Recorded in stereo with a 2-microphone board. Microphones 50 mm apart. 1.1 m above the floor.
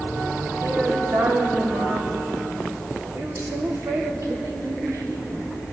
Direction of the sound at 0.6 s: 75° right (ahead or behind).